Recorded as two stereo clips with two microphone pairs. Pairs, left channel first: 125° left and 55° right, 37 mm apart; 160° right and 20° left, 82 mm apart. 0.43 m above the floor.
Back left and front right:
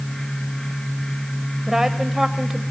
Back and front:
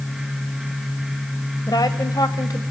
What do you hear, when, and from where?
1.7 s a woman speaking: 135° right, 1.8 m